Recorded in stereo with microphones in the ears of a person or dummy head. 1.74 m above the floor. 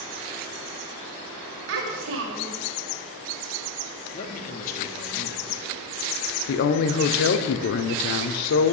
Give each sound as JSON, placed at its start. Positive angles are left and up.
{"t": 1.7, "sound": "a child speaking", "side_deg": -65, "distance_m": 2.0}
{"t": 4.1, "sound": "a man speaking", "side_deg": 45, "distance_m": 1.1}
{"t": 6.5, "sound": "a woman speaking", "side_deg": 55, "distance_m": 0.6}